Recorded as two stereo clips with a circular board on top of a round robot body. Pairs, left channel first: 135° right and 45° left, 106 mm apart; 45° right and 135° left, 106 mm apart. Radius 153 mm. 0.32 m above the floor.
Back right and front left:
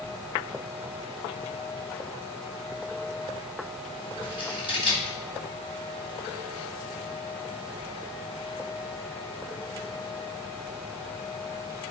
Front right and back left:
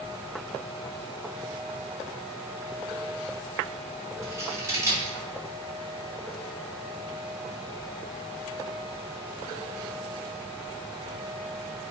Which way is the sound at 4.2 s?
165° right.